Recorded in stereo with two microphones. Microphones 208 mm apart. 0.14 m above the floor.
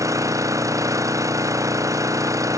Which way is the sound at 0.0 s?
15° right (ahead or behind).